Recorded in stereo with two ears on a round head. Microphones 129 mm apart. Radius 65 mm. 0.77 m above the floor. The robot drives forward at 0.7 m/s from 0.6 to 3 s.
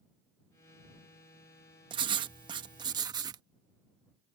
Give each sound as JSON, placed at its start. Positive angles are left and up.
{"t": 1.9, "sound": "writing", "side_deg": -30}